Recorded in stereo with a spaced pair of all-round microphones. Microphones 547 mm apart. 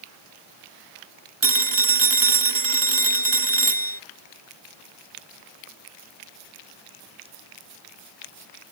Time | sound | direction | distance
1.4 | a phone ringing | 50° right (ahead or behind) | ?